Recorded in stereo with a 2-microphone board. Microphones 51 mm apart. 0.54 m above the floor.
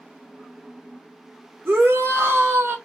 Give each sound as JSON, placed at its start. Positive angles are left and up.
{"t": 1.6, "sound": "a shout", "side_deg": -50, "distance_m": 1.7}